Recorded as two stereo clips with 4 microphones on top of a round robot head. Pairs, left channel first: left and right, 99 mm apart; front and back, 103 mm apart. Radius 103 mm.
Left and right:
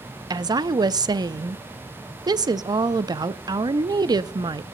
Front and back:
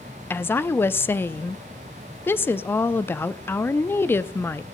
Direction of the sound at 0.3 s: 65° right.